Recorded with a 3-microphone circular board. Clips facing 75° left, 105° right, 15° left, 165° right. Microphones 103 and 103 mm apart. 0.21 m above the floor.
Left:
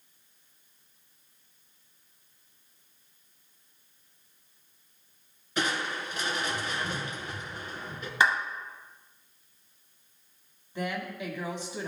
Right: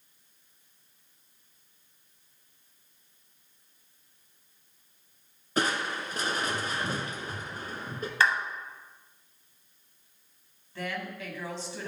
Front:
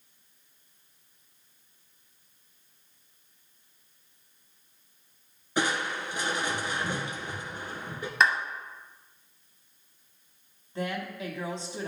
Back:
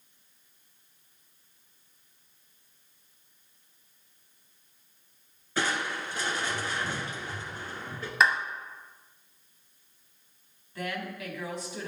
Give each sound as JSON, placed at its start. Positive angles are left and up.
{"t": 5.6, "sound": "crushing", "azimuth_deg": -55, "distance_m": 0.9}
{"t": 8.2, "sound": "a clap", "azimuth_deg": 110, "distance_m": 0.8}
{"t": 10.8, "sound": "a woman speaking", "azimuth_deg": 20, "distance_m": 1.4}